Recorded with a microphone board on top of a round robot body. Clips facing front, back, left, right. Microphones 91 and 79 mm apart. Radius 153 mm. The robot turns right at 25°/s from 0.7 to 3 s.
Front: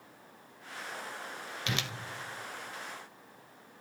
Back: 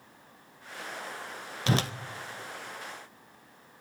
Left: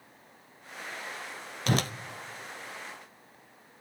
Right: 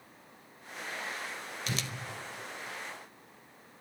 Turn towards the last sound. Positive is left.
turn(degrees=160)